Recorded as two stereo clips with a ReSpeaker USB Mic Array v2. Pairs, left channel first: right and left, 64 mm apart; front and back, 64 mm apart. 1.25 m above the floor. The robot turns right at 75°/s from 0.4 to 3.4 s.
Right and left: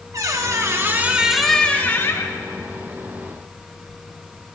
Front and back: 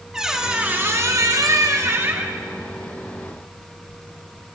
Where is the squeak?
100° left, 1.0 m; by 2.4 s 110° right, 1.0 m.